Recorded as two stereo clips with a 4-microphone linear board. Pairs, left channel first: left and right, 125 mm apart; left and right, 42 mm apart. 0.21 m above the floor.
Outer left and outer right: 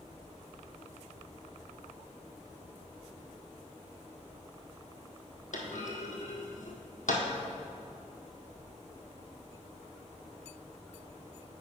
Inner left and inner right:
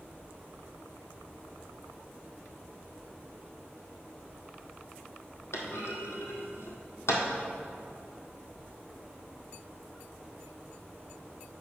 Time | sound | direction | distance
5.5 | a clunk | 80° left | 1.6 m